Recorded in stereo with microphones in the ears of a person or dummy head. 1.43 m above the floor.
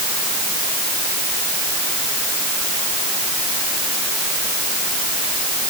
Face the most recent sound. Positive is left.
No sound to turn to.